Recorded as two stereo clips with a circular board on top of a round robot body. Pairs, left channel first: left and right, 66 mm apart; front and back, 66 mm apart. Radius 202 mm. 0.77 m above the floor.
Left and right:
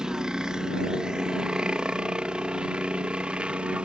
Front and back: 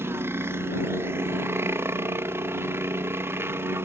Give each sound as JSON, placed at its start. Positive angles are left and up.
{"t": 0.0, "sound": "a helicopter", "azimuth_deg": -165}